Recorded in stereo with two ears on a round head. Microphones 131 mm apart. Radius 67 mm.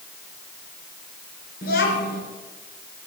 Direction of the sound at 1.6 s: 65° left (ahead or behind).